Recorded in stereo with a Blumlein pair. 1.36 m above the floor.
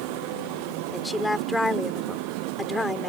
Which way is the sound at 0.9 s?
5° left.